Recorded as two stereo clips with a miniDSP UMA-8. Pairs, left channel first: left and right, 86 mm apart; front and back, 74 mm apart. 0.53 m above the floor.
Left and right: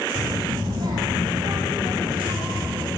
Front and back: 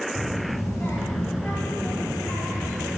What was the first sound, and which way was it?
A child speaking, 75° right.